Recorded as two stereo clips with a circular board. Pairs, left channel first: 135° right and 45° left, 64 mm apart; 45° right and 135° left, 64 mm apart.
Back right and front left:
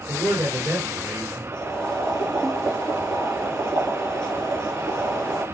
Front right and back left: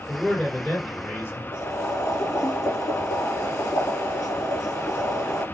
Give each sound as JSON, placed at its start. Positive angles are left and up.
{"t": 0.1, "sound": "a man speaking", "azimuth_deg": 25, "distance_m": 1.8}
{"t": 1.5, "sound": "boiling", "azimuth_deg": -55, "distance_m": 2.0}